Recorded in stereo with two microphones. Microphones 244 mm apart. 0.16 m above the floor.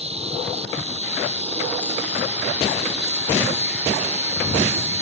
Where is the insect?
25° right (ahead or behind).